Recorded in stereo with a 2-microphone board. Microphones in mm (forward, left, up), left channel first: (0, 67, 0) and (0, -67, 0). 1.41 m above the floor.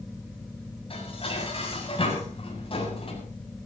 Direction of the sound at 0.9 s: 45° left (ahead or behind).